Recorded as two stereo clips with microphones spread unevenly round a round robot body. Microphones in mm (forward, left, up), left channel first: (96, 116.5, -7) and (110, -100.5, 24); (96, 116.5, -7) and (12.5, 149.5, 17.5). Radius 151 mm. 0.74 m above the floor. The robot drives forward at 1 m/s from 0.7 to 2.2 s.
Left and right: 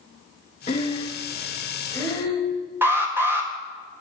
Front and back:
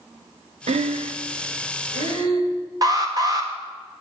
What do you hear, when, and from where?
0.7 s breathing: 165° left, 0.5 m; by 2.5 s 175° left, 2 m
2.8 s an alarm: 175° right, 1.7 m